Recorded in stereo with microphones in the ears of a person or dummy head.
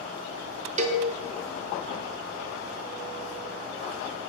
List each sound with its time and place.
0.8 s a cowbell: 30° right (ahead or behind), 1.0 m